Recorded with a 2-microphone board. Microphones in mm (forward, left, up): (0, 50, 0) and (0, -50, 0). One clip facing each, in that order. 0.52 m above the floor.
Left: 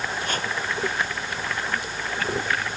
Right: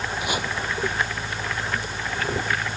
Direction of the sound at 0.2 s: 10° right (ahead or behind).